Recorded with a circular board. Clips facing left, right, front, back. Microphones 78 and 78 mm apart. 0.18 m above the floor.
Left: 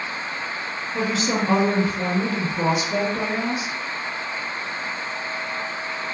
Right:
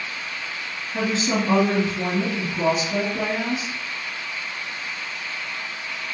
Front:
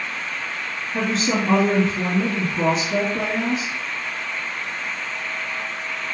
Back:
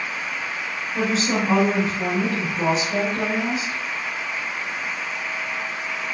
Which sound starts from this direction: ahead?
A woman speaking, at 0.9 s.